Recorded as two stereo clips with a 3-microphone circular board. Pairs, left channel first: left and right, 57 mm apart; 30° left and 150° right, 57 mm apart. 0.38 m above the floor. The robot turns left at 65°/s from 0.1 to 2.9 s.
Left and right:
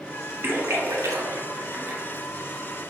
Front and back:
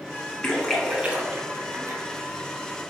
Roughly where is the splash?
Ahead right.